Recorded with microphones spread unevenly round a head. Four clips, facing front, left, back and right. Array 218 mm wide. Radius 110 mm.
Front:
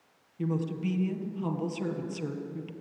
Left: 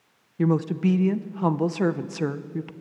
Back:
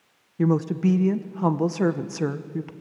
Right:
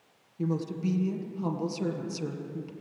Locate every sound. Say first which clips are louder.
0.4 s a woman speaking: left 8 dB, back 9 dB; 140° left, 1.1 m